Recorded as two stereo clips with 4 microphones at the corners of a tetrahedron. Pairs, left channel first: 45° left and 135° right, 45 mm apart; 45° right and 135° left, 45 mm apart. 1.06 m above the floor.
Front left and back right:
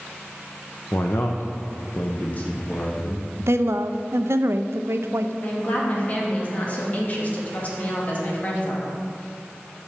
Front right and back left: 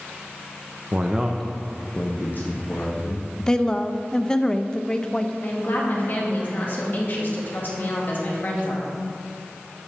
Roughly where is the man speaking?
Left.